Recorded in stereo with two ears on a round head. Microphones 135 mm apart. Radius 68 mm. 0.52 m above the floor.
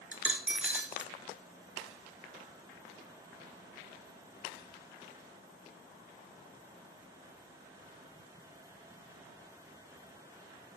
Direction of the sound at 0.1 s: 10° right (ahead or behind).